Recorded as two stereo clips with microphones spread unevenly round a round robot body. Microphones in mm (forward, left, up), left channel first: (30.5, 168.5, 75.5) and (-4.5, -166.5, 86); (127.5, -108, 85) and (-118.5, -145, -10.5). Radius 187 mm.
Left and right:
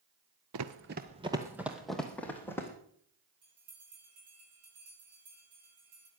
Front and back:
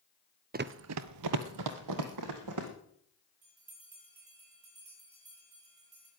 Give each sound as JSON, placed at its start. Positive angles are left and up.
{"t": 0.5, "sound": "running footsteps", "azimuth_deg": -105, "distance_m": 0.7}
{"t": 3.4, "sound": "a bell", "azimuth_deg": -145, "distance_m": 9.5}